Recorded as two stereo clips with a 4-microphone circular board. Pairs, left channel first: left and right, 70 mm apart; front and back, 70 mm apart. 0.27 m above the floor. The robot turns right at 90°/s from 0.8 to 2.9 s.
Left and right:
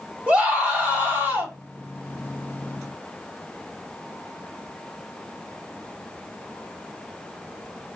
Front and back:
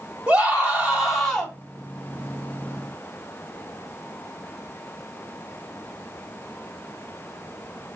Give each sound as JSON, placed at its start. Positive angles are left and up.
{"t": 0.3, "sound": "a scream", "azimuth_deg": -130, "distance_m": 1.7}